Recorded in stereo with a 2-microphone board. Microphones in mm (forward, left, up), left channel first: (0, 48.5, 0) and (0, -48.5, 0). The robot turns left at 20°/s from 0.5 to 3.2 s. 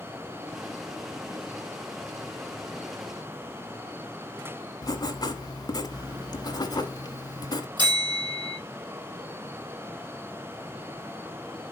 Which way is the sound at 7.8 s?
50° right (ahead or behind).